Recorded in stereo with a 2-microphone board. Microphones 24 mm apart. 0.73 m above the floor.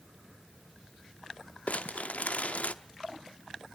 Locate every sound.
1.7 s crumpling: 70° left (ahead or behind), 0.8 m